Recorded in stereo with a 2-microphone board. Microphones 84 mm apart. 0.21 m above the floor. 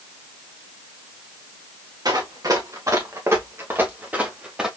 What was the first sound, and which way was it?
Running footsteps, 50° right (ahead or behind).